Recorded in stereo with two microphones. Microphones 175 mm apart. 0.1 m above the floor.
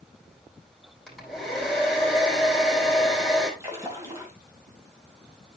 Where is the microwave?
I don't hear a microwave.